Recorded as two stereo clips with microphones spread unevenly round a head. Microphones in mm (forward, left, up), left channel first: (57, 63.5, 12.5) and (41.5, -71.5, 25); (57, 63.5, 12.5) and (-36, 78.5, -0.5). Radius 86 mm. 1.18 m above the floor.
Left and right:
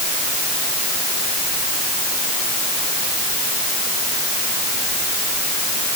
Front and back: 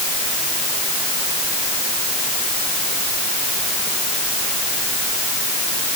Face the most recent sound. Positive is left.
No sound to turn to.